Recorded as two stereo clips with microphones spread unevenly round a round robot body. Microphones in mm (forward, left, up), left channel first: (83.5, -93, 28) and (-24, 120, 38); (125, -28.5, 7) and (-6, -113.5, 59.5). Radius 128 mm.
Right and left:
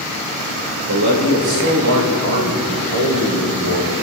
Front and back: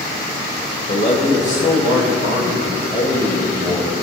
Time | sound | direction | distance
0.9 | a man speaking | 100° left | 3 m